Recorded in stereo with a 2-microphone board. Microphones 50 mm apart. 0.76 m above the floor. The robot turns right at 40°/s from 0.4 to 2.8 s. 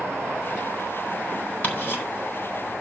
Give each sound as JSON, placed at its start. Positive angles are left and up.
{"t": 1.6, "sound": "ticking", "side_deg": 30, "distance_m": 4.0}